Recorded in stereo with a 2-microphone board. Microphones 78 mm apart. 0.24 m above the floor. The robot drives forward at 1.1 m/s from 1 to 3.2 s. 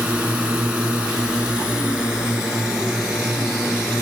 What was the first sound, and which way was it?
A drone, 15° right (ahead or behind).